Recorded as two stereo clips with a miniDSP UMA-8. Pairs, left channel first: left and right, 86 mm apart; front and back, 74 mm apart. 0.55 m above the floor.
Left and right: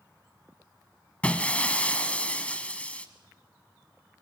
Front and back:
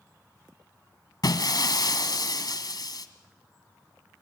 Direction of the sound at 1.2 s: 15° left.